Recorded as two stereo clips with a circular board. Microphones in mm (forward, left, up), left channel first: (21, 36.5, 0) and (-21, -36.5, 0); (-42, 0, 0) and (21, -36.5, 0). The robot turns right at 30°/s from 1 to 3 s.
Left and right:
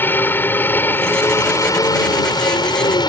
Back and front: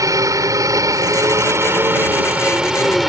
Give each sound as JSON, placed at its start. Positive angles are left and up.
{"t": 0.0, "sound": "a helicopter", "azimuth_deg": 0}